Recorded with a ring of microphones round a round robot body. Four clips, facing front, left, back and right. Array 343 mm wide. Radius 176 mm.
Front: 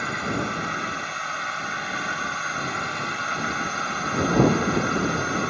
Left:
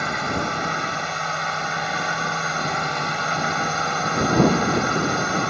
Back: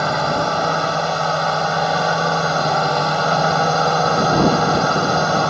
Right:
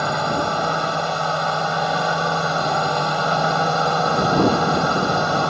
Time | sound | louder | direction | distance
0.0 | a drone | right 4 dB, back 9 dB | 150° right | ?